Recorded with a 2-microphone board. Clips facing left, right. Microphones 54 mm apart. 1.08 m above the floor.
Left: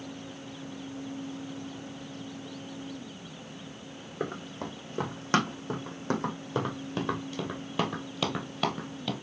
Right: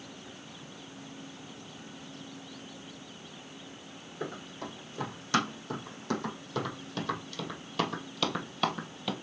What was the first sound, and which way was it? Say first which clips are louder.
Running footsteps: left 4 dB; 45° left (ahead or behind).